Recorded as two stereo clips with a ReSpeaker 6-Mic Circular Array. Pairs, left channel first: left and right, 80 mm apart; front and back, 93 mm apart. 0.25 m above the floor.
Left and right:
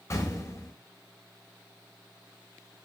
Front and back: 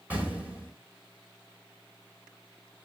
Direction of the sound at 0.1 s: 115° left.